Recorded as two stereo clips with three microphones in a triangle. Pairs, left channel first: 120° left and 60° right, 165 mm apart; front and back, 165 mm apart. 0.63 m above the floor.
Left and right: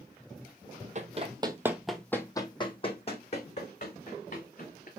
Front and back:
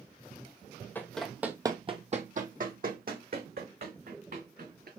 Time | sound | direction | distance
0.9 | running footsteps | 75° right | 0.9 m